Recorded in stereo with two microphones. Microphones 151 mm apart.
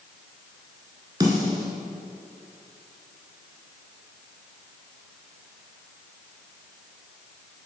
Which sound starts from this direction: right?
A snare drum, at 1.2 s.